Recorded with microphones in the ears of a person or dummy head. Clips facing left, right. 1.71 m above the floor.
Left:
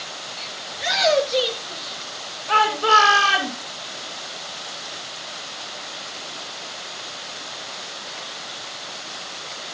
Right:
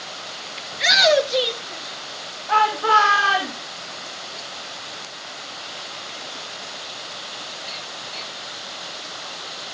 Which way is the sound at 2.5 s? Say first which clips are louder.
Even; 45° left (ahead or behind).